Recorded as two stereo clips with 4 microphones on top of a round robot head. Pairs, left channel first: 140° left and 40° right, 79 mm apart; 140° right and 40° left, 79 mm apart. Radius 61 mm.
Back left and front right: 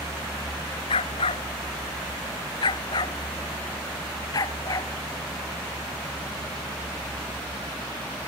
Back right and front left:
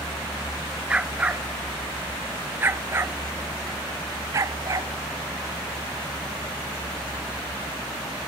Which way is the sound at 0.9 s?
115° left.